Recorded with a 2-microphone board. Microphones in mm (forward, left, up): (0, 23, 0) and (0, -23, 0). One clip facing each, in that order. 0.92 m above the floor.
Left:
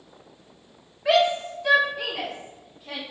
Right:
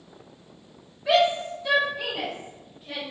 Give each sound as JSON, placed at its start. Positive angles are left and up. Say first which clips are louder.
{"t": 1.1, "sound": "a shout", "louder": "left 1 dB", "side_deg": 65, "distance_m": 1.3}